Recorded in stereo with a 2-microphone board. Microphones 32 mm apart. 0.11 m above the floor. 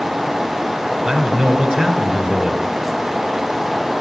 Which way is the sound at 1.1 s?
25° right (ahead or behind).